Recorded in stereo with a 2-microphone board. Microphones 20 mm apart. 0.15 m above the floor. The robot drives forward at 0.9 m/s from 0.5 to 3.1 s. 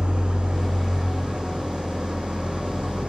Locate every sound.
0.0 s an engine running: 55° right (ahead or behind), 5.5 m; by 3.1 s 80° right, 4.5 m